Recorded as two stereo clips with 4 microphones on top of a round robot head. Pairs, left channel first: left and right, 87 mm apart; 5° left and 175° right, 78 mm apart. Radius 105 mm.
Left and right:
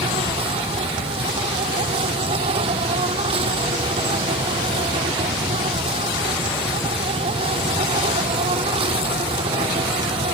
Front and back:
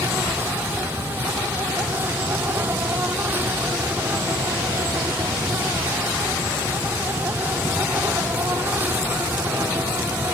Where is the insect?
105° right.